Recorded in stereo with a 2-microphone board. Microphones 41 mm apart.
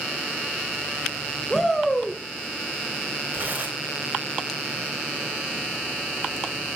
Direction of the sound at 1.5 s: 15° left (ahead or behind).